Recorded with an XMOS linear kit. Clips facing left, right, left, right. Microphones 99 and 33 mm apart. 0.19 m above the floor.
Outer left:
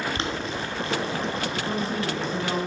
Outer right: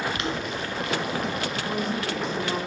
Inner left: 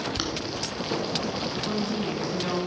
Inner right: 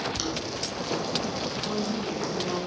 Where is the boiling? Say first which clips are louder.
Even, inner left 1 dB; 30° left (ahead or behind), 1.6 m.